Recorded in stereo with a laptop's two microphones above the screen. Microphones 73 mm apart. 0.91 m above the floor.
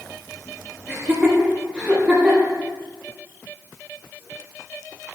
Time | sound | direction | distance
0.9 | laughter | 15° right (ahead or behind) | 2.0 m